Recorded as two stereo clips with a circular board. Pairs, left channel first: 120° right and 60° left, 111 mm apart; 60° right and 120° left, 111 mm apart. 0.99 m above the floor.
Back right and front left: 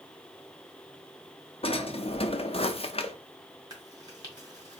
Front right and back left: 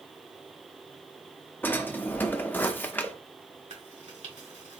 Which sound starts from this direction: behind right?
A drawer, at 1.6 s.